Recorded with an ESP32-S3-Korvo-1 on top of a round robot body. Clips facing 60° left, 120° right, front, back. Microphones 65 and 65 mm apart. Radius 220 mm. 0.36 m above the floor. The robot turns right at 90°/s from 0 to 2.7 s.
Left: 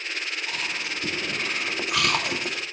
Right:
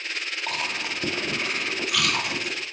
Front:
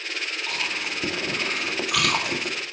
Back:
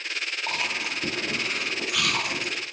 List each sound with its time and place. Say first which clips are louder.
0.5 s chewing: right 1 dB, back 1 dB; 130° right, 4.5 m; by 2.6 s 65° left, 4.5 m